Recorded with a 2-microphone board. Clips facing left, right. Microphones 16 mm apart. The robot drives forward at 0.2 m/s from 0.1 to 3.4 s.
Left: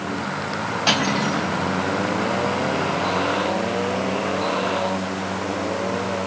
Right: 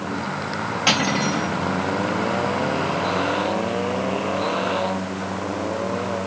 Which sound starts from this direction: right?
Cutlery clinking, at 0.9 s.